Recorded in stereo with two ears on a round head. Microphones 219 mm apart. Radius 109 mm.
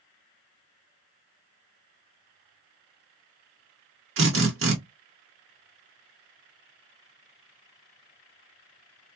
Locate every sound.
4.2 s a drill: 55° right (ahead or behind), 1.4 m